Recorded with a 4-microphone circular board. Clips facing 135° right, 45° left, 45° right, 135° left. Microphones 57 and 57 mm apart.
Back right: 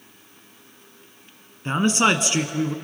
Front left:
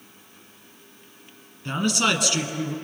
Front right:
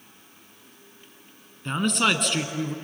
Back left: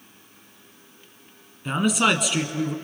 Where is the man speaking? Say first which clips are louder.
Back right 4 dB, back left 2 dB; 145° right, 1.4 m.